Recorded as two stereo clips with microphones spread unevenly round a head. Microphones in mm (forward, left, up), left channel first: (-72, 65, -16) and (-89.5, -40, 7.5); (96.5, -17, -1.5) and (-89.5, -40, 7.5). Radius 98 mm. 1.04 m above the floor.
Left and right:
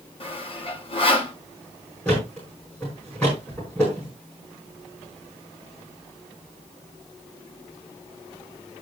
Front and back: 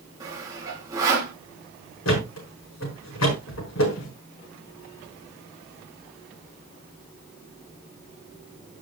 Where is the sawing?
115° left, 2.5 m.